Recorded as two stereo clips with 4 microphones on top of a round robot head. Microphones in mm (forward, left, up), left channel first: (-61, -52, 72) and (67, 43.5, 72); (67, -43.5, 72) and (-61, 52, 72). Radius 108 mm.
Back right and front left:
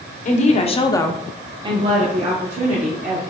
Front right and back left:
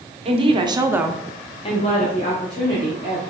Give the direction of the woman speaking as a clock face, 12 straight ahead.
6 o'clock.